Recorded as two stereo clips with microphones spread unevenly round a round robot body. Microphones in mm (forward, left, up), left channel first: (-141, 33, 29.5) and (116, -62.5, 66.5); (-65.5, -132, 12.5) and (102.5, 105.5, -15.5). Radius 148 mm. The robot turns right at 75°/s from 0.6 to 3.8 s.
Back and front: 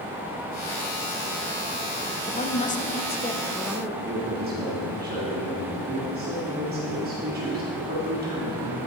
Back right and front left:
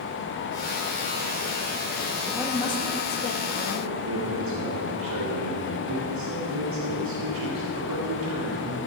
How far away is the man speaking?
About 2 m.